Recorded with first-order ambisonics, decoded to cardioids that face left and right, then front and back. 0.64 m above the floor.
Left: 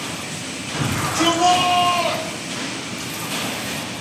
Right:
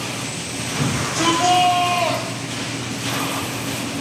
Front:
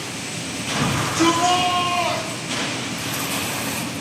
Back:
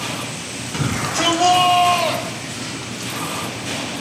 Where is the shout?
160° left, 3.5 m; by 3.1 s 140° left, 1.9 m.